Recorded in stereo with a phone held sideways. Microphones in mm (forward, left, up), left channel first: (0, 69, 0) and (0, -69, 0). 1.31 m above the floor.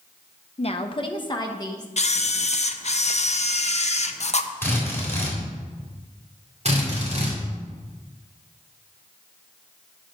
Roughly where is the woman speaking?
Left.